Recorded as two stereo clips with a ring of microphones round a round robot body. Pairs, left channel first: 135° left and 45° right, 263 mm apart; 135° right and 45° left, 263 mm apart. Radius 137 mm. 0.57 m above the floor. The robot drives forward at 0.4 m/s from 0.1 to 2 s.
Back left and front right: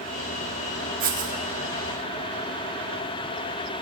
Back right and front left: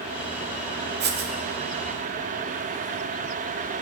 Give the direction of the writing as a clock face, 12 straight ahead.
12 o'clock.